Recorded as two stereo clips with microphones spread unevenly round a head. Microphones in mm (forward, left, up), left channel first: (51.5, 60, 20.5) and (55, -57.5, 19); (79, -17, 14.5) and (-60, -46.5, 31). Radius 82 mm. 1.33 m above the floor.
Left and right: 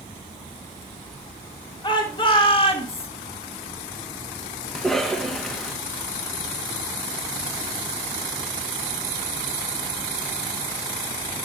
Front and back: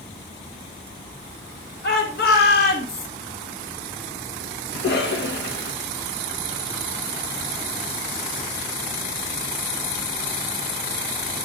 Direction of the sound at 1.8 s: 45° left.